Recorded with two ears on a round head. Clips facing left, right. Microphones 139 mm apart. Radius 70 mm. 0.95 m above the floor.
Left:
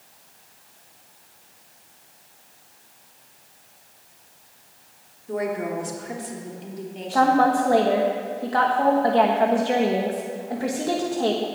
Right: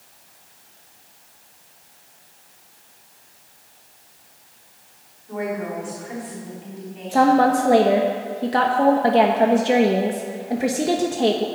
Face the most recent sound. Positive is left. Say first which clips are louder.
# right 2 dB
turn(degrees=-25)  # may be behind; listen again after turning